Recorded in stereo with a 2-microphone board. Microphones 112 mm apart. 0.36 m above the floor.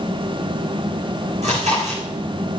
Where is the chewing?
80° right, 8 m.